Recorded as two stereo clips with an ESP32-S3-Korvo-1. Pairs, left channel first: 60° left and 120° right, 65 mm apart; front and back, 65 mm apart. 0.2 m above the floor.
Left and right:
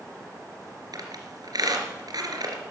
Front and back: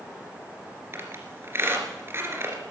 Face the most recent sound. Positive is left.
turn(degrees=-130)